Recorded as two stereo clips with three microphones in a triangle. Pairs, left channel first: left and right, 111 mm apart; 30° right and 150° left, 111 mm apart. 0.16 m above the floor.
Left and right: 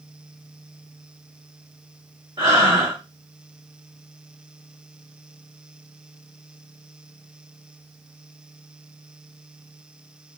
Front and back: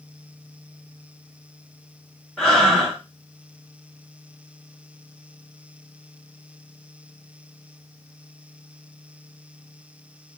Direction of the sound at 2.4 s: 110° right.